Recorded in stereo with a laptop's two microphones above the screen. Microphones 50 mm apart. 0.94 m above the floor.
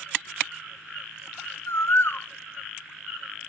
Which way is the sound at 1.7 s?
55° left (ahead or behind).